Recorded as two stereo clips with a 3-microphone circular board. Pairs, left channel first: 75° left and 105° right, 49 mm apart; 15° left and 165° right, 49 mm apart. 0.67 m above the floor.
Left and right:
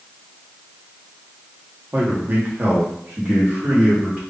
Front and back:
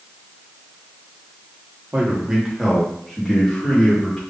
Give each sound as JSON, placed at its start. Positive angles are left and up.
{"t": 1.9, "sound": "a man speaking", "azimuth_deg": -130, "distance_m": 0.8}